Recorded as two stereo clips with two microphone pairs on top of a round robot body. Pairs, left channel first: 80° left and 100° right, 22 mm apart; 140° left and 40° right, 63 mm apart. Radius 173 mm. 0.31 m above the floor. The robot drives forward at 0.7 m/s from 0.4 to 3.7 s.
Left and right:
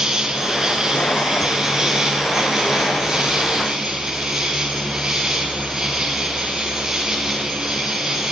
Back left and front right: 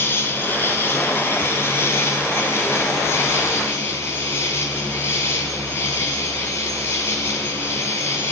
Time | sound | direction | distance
0.0 | an insect | 165° right | 5 m